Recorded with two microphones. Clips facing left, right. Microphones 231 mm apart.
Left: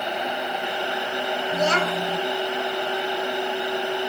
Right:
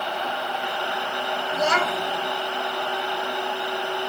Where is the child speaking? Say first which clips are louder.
Left 1 dB; 35° left (ahead or behind), 1.2 m.